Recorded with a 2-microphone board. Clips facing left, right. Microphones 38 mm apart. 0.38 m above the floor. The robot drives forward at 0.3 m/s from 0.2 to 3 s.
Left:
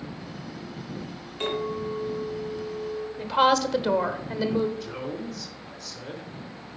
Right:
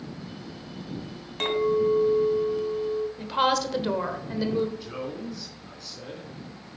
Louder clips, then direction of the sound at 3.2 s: Left 5 dB; centre (ahead or behind).